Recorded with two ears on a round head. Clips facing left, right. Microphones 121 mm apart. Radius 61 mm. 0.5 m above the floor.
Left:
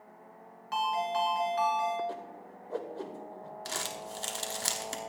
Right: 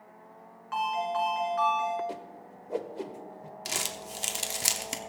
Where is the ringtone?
45° left (ahead or behind), 3 m.